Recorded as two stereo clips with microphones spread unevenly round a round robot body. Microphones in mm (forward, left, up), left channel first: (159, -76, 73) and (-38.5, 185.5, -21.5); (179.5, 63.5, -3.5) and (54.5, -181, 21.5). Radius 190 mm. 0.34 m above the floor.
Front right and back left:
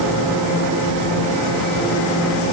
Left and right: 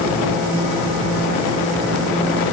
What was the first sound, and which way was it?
Only background noise.